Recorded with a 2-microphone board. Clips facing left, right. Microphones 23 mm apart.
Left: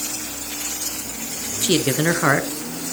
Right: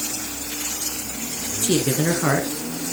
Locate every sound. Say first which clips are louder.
1.6 s a man speaking: left 2 dB; 35° left (ahead or behind), 1.4 m